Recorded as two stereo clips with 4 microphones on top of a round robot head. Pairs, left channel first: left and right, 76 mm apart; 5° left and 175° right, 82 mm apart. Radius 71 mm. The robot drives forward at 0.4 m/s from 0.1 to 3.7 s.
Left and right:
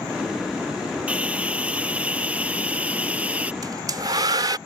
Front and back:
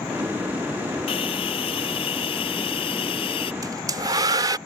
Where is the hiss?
20° right.